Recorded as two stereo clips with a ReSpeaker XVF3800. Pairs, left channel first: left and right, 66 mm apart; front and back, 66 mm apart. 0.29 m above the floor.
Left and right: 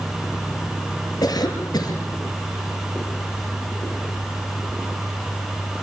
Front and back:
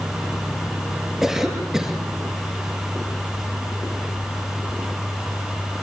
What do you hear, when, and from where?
1.2 s a cough: 95° left, 6.5 m